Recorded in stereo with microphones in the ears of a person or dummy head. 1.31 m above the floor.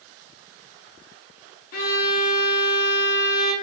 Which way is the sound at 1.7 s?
50° left (ahead or behind).